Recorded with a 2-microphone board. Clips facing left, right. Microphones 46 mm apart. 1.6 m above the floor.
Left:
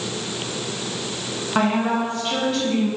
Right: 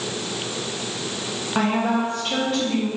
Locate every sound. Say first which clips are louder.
1.6 s a woman speaking: left 1 dB; 10° left (ahead or behind), 0.8 m; by 2.9 s 5° right (ahead or behind), 2.5 m